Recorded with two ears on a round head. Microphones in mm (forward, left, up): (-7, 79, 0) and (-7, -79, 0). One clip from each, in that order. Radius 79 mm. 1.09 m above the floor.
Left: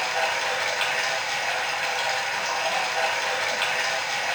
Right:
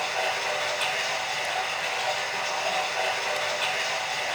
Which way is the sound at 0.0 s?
25° left (ahead or behind).